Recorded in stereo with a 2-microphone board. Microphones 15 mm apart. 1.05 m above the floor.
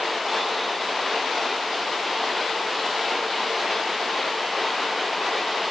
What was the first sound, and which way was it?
Only background noise.